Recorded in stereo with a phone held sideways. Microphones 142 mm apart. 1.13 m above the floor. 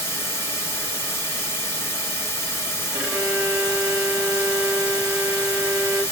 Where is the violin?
5° right (ahead or behind), 2 m.